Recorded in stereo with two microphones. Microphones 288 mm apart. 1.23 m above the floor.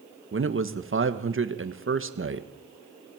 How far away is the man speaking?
About 1.6 m.